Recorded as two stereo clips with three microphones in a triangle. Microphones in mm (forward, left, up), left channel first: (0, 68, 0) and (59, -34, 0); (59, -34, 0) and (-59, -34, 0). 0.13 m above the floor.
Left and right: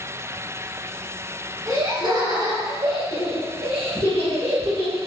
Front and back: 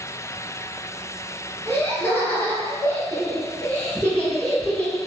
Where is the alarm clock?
I don't hear an alarm clock.